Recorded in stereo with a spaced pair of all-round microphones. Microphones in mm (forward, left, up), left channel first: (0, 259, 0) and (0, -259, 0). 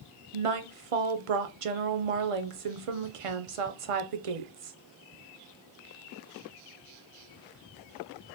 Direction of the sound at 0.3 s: 85° right.